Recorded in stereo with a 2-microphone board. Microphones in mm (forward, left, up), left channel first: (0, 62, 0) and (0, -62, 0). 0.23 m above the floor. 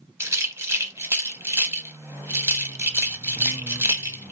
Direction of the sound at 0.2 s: 20° right (ahead or behind).